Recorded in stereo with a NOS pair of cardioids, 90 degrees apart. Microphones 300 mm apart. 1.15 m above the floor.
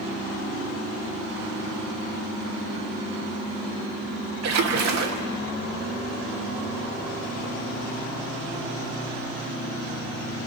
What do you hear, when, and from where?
4.4 s a splash: 65° right, 2.5 m